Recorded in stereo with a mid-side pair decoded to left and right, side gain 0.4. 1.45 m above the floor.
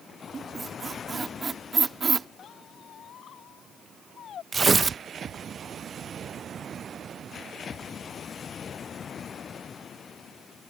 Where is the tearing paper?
35° right.